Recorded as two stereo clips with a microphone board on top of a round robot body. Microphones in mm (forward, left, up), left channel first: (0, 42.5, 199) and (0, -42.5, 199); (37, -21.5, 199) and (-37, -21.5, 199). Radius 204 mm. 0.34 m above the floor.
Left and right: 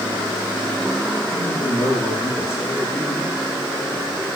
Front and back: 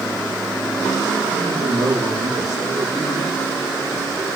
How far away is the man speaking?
About 8 m.